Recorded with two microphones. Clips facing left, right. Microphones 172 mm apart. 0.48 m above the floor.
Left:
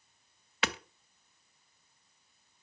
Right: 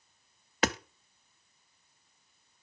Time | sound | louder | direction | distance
0.6 | hammering | right 6 dB | 40° right (ahead or behind) | 0.5 m